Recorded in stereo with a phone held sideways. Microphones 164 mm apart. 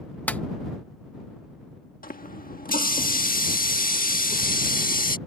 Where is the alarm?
No alarm in this recording.